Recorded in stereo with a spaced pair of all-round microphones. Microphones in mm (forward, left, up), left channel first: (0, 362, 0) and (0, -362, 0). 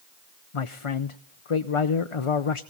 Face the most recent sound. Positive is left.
turn(degrees=50)  # may be behind; listen again after turning